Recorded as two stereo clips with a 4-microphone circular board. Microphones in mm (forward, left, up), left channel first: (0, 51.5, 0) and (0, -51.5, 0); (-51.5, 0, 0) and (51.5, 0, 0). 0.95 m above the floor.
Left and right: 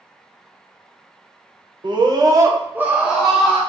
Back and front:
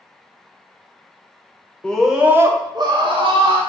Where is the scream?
100° right, 0.5 m; by 3.6 s 5° left, 0.9 m.